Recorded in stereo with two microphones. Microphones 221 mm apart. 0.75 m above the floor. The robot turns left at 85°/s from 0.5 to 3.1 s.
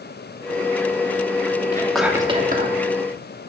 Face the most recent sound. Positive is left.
turn(degrees=-95)